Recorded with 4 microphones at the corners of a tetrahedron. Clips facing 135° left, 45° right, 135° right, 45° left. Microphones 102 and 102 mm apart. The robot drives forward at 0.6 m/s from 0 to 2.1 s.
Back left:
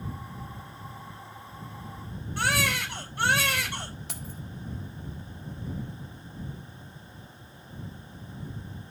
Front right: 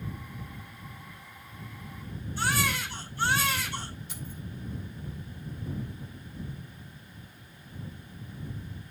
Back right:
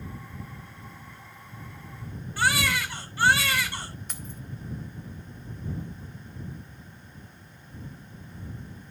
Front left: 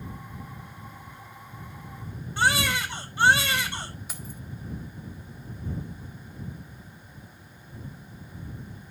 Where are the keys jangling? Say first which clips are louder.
Back left 1 dB, even; 130° left, 1.6 m.